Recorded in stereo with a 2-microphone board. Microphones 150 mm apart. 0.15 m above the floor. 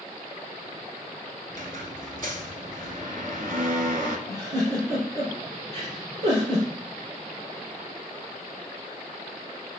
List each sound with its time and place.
1.5 s a squeak: 65° right (ahead or behind), 0.6 m
4.3 s a giggle: 40° right (ahead or behind), 2 m